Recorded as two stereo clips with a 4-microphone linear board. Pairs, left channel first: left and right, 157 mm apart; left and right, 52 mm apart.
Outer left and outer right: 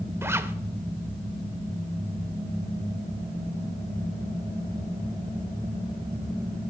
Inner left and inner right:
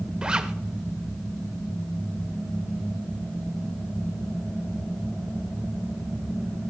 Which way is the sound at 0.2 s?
15° right (ahead or behind).